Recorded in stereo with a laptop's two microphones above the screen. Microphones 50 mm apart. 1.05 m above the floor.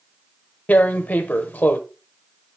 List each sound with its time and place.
0.7 s tearing paper: 30° left (ahead or behind), 0.8 m